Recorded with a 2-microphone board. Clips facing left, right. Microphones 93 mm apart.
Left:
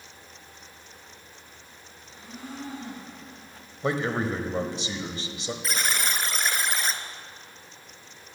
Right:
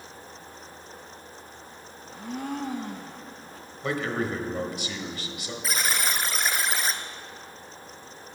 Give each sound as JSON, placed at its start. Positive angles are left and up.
{"t": 2.0, "sound": "a blender", "side_deg": -65, "distance_m": 1.5}
{"t": 3.8, "sound": "a man speaking", "side_deg": 25, "distance_m": 1.2}
{"t": 5.6, "sound": "a buzzer", "side_deg": 0, "distance_m": 0.9}